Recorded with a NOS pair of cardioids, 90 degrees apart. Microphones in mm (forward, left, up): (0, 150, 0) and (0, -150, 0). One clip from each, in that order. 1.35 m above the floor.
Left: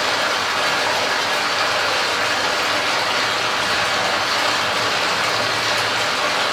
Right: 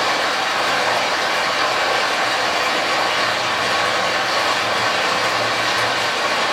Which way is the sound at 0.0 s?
45° left.